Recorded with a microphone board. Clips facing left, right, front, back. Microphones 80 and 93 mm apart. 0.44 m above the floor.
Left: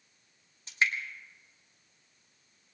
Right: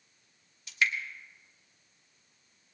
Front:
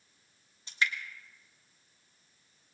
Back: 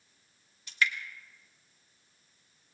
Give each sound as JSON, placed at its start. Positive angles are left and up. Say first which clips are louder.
{"t": 0.7, "sound": "dripping", "louder": "even, back 2 dB", "azimuth_deg": 50, "distance_m": 1.4}